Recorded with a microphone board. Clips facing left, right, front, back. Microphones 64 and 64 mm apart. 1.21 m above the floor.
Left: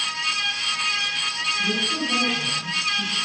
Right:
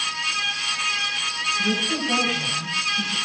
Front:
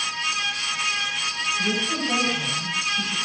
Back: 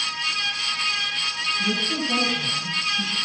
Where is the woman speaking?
45° right, 10 m.